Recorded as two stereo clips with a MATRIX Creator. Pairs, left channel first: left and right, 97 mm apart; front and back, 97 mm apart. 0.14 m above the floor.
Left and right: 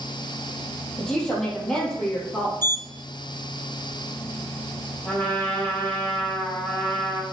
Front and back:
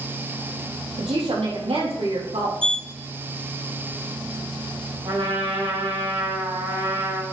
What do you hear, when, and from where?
1.0 s a woman speaking: 175° left, 4 m
2.6 s a sliding door: 155° left, 0.5 m
5.0 s a trumpet: 160° left, 5 m